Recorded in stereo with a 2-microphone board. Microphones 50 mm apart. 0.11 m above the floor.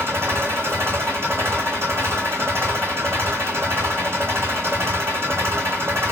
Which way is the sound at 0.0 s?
55° right (ahead or behind).